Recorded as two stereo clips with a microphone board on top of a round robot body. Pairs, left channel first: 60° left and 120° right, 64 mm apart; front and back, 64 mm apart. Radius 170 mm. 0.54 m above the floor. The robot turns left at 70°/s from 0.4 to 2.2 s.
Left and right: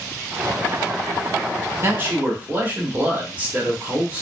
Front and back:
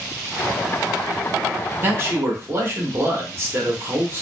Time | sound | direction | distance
1.8 | a man speaking | 145° right | 1.3 m